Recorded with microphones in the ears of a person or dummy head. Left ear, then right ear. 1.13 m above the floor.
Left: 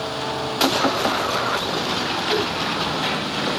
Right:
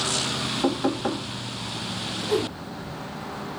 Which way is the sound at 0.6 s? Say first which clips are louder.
Left 8 dB; 65° left (ahead or behind).